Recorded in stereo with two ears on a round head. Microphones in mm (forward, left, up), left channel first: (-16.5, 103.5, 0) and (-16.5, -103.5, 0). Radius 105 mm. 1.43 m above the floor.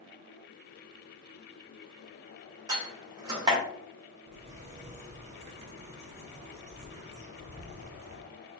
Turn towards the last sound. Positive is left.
turn(degrees=-30)  # may be behind; listen again after turning